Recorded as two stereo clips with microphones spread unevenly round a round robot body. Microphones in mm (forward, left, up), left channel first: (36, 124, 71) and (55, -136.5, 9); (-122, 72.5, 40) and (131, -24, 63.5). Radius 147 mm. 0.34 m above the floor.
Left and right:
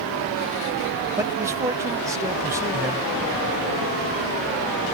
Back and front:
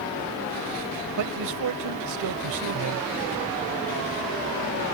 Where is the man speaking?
15° right.